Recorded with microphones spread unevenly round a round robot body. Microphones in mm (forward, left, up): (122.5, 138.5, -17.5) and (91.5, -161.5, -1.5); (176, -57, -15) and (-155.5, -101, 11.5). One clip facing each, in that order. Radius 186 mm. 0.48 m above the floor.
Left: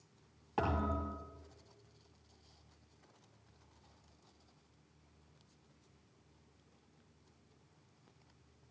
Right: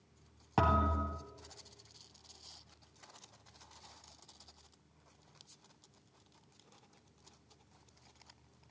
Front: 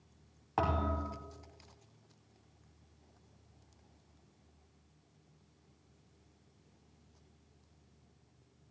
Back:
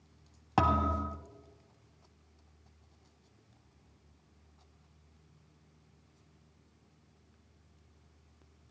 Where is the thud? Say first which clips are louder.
Right 2 dB, back 4 dB; 145° right, 2.5 m.